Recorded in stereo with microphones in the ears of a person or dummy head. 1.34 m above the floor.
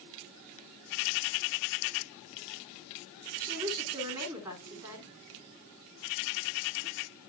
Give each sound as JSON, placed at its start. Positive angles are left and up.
{"t": 3.4, "sound": "a woman speaking", "side_deg": -10, "distance_m": 3.5}